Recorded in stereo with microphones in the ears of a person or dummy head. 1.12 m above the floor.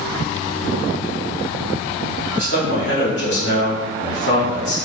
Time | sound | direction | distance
2.3 | a man speaking | 55° left (ahead or behind) | 1.1 m